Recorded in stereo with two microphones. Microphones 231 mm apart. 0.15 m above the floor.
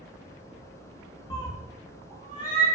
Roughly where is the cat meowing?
Centre.